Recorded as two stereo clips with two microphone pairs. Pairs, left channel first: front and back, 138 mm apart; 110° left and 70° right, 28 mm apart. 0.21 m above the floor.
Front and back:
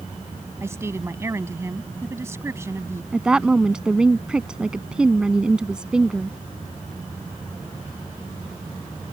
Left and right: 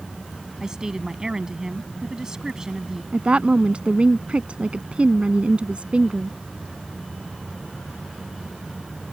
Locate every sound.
0.6 s a woman speaking: 120° right
3.1 s a woman speaking: 100° right